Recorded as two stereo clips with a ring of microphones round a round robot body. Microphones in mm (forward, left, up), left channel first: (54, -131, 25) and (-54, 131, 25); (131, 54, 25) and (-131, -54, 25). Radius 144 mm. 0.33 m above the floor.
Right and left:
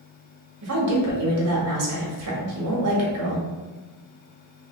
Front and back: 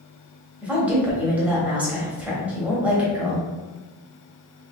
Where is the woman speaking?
120° left, 1.4 m.